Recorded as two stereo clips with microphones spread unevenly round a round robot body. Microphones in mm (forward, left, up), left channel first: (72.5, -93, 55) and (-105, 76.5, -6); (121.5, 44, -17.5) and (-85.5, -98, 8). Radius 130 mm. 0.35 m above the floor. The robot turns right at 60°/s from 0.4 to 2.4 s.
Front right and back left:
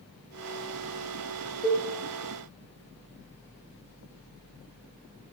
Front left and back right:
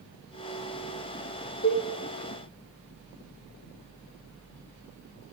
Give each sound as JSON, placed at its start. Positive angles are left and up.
{"t": 1.6, "sound": "a cowbell", "azimuth_deg": 60, "distance_m": 0.9}